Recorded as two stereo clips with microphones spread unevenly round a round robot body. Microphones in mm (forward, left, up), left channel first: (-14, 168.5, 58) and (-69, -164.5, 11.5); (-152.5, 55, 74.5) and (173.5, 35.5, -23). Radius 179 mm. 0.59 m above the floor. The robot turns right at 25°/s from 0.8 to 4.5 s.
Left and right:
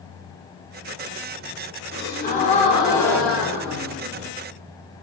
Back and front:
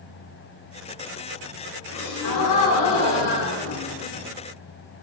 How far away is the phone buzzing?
I don't hear a phone buzzing.